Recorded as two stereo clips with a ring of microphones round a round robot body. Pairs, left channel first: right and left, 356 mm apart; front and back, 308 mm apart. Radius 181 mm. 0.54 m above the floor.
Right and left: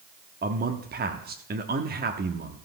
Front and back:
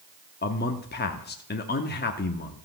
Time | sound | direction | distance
0.4 | a man speaking | 40° left | 0.8 m